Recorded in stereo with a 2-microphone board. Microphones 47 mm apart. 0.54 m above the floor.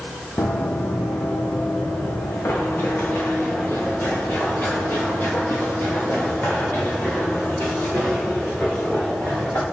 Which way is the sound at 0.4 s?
55° left (ahead or behind).